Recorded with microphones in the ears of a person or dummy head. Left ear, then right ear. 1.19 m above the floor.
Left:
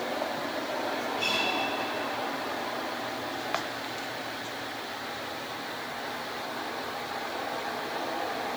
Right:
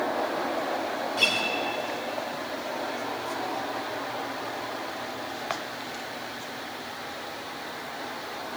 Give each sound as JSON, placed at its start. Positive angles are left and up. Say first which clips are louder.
{"t": 1.2, "sound": "a guitar", "louder": "right 4 dB", "side_deg": -65, "distance_m": 2.0}